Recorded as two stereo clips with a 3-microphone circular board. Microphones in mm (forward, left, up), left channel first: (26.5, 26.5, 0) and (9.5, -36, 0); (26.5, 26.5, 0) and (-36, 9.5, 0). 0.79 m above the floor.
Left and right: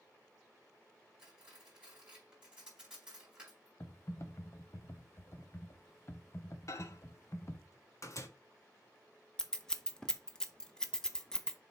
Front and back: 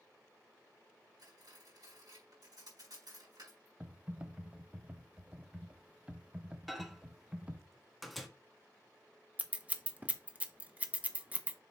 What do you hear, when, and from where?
1.2 s cutlery clinking: 175° left, 4 m
3.8 s typing on a keyboard: 120° left, 0.8 m
6.7 s a microwave: 105° left, 1.2 m
9.4 s scissors: 150° left, 0.8 m